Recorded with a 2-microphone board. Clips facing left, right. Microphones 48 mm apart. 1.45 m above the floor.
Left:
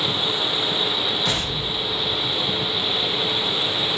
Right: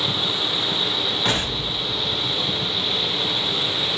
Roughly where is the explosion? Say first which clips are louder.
Right 1 dB; right.